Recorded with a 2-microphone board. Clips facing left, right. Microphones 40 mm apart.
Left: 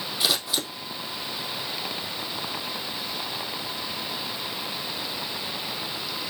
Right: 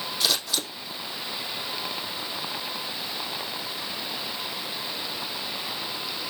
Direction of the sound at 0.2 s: 15° left (ahead or behind).